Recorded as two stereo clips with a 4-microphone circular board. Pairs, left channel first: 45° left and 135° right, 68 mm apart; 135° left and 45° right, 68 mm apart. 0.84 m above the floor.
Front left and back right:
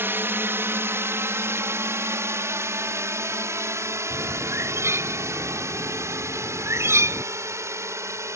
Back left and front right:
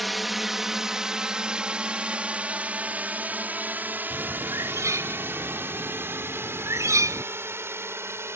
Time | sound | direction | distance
0.0 | a drone | 135° right | ?
4.1 | a bird | 90° right | ?